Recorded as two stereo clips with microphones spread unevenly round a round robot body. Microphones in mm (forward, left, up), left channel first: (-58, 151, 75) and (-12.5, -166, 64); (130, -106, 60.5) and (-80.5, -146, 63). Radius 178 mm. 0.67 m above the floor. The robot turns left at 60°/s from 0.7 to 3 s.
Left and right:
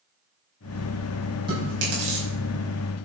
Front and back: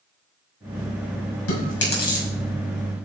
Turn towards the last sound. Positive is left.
turn(degrees=-95)